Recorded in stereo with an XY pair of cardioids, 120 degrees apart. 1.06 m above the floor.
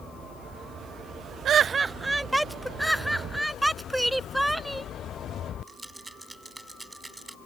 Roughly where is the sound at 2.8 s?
Ahead.